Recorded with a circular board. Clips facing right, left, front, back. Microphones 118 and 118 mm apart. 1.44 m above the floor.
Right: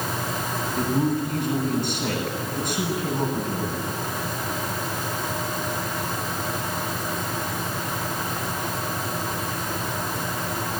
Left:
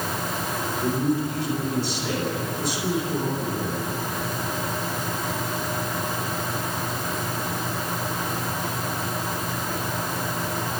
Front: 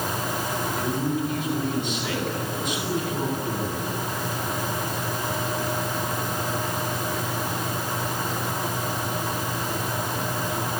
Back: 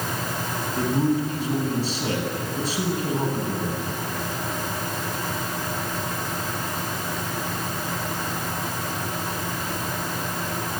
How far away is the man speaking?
About 9.5 m.